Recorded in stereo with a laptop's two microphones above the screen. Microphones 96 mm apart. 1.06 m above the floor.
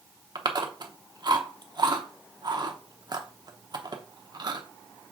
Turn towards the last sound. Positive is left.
turn(degrees=-45)  # may be behind; listen again after turning